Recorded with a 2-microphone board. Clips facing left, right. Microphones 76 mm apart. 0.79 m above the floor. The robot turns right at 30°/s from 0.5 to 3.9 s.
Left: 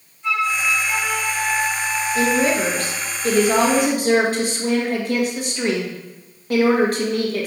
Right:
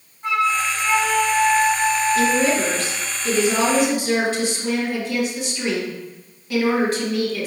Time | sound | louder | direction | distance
0.2 | a flute | right 1 dB | 45° right | 0.8 m
2.1 | a woman speaking | left 4 dB | 40° left | 1.2 m